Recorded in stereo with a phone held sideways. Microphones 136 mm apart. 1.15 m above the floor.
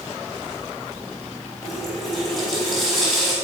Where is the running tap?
Centre (ahead or behind), 4.5 m.